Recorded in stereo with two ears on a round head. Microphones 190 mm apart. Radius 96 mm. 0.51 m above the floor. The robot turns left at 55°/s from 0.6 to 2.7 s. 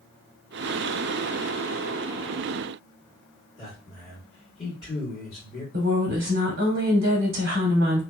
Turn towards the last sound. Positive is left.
turn(degrees=-45)  # may be behind; listen again after turning